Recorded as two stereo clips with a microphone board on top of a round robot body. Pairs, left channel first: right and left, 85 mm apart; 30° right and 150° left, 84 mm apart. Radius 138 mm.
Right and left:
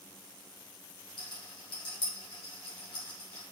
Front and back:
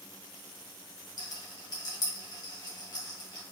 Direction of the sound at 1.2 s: 75° right.